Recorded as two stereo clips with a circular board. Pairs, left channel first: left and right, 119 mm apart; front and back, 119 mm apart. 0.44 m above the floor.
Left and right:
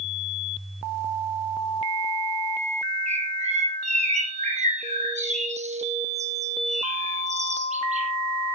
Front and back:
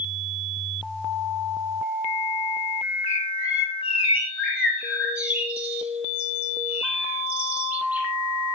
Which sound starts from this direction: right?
A bird, at 3.1 s.